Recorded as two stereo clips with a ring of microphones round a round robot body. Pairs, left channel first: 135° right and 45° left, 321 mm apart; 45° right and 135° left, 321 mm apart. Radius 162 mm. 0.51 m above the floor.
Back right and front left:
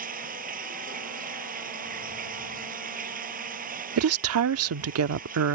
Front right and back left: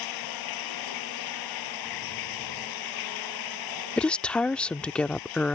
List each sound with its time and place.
0.0 s running water: 20° right
4.0 s a woman speaking: 40° left